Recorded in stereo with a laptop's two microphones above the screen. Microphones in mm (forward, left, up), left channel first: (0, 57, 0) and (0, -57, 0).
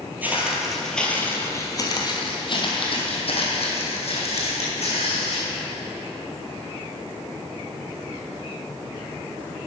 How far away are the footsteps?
About 1.2 m.